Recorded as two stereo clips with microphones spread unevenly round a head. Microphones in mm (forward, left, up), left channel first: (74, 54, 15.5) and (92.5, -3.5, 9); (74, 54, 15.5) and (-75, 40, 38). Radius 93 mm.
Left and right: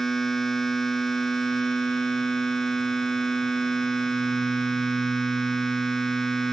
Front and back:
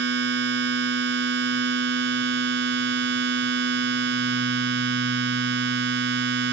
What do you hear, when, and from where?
0.0 s a machine running: 165° right